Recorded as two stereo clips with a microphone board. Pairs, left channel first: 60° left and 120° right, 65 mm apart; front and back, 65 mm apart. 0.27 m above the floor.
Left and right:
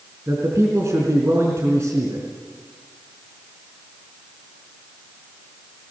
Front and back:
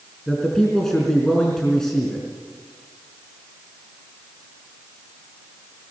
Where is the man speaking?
80° right, 4 m.